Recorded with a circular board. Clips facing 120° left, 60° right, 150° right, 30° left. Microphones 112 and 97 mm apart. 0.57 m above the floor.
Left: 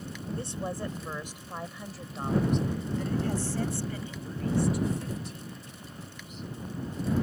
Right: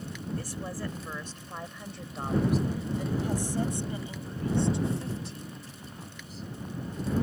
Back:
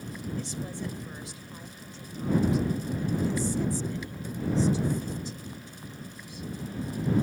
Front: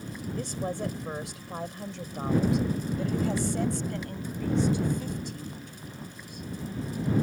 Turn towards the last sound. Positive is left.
turn(degrees=-10)